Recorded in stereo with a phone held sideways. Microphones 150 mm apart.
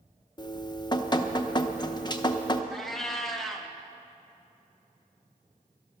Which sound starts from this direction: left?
Dripping, at 0.4 s.